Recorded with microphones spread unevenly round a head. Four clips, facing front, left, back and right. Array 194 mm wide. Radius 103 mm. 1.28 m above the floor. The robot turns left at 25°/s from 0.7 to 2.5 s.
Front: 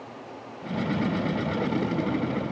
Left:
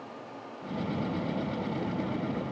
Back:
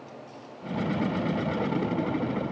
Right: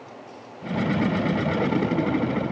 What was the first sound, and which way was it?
Only background noise.